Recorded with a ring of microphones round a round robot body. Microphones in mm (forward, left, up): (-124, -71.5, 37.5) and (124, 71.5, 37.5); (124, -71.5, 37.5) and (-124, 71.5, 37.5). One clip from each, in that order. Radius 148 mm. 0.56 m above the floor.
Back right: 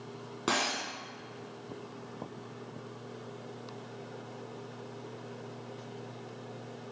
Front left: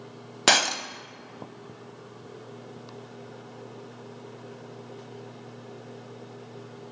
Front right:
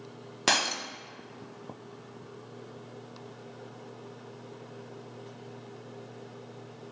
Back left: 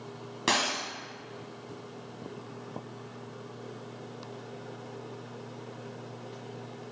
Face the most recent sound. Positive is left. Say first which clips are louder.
# front left 9 dB, front right 1 dB
turn(degrees=35)